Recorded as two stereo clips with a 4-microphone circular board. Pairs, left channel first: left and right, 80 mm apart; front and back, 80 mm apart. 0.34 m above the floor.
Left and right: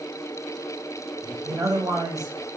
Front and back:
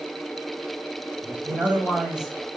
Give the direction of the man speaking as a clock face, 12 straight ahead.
4 o'clock.